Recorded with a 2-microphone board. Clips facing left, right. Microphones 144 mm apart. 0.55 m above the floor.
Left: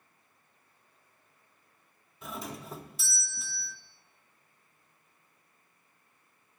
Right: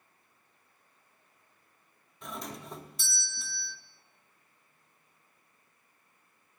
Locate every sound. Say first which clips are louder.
2.2 s a doorbell: left 1 dB; centre (ahead or behind), 1.2 m